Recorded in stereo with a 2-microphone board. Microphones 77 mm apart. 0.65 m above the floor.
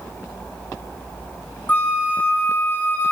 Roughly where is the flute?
Left.